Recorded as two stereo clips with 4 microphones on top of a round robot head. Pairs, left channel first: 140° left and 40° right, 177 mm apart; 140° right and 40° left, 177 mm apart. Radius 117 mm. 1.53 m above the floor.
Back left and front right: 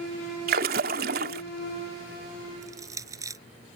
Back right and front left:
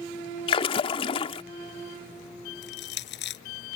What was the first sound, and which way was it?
A splash, 80° right.